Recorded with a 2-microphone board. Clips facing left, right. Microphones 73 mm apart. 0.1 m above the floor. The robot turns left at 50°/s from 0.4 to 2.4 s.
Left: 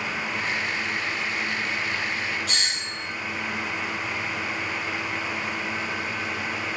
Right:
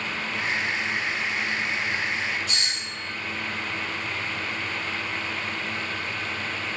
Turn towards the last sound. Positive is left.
turn(degrees=65)  # may be behind; listen again after turning